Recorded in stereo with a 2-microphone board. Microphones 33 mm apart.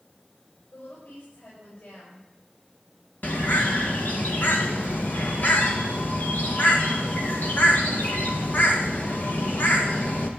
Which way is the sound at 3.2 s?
60° left (ahead or behind).